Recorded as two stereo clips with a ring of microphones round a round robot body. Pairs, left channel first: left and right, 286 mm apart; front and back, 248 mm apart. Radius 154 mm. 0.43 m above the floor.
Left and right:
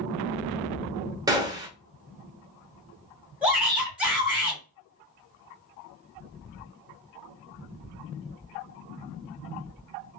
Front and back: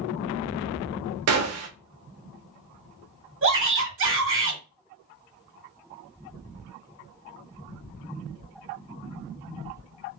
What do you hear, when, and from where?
1.3 s a gunshot: 165° right, 0.7 m
3.4 s a shout: 175° right, 2 m